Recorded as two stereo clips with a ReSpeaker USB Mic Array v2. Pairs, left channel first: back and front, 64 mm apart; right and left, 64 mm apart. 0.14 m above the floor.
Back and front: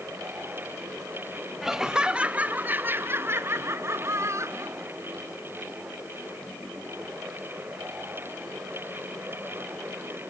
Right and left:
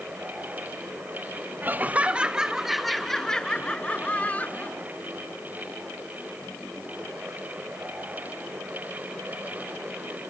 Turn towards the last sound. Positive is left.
turn(degrees=-30)